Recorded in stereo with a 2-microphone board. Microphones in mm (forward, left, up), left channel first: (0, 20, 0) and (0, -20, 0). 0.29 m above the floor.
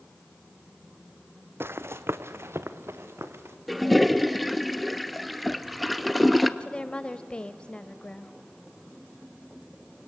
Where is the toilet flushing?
Centre (ahead or behind), 0.8 m.